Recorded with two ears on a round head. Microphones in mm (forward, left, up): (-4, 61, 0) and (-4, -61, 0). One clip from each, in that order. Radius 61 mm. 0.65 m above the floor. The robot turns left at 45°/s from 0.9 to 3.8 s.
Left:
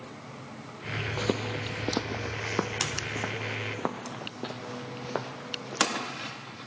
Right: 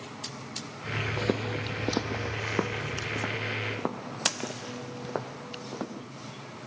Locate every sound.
1.2 s footsteps: 30° left (ahead or behind); by 6.0 s 60° left (ahead or behind)